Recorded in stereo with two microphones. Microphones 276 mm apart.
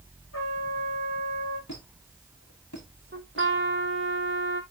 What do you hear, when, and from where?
0.3 s a trumpet: 75° left (ahead or behind), 5 m
1.7 s a squeak: 85° left, 6 m
3.1 s a trumpet: 45° right (ahead or behind), 1.3 m